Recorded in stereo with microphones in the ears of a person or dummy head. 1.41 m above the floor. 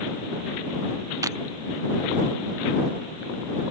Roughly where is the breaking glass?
Centre.